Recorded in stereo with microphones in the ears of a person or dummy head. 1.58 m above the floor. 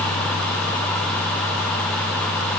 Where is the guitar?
I don't hear a guitar.